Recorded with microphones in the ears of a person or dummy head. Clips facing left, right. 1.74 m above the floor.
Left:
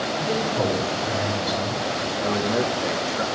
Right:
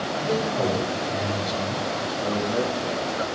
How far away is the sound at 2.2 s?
About 1.1 m.